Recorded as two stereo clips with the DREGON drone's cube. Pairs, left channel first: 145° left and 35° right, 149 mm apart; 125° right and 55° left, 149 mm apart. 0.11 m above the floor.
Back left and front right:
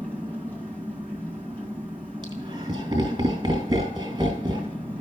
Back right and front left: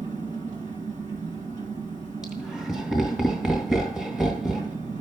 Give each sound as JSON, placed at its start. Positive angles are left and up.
{"t": 0.0, "sound": "an engine running", "azimuth_deg": 70, "distance_m": 2.0}
{"t": 2.2, "sound": "laughter", "azimuth_deg": -30, "distance_m": 1.6}